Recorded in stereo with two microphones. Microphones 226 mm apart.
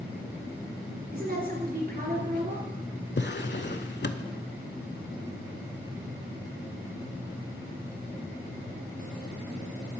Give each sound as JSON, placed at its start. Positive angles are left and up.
{"t": 1.1, "sound": "a woman speaking", "side_deg": -45, "distance_m": 2.0}
{"t": 3.2, "sound": "a drawer", "side_deg": 55, "distance_m": 0.6}